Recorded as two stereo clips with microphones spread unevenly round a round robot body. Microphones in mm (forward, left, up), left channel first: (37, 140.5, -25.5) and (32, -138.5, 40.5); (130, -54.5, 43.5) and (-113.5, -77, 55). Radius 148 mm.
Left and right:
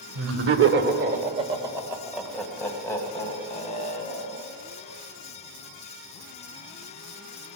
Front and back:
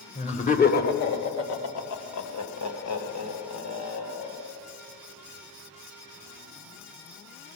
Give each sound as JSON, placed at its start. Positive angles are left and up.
{"t": 0.1, "sound": "laughter", "azimuth_deg": -55, "distance_m": 1.8}